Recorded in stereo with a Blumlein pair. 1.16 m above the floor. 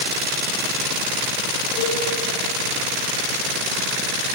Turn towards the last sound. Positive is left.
turn(degrees=30)